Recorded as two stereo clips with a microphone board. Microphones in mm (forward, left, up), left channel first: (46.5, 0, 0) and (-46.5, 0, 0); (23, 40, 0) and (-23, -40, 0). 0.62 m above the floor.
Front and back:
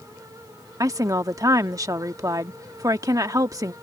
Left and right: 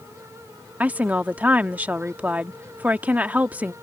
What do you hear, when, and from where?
0.8 s a woman speaking: straight behind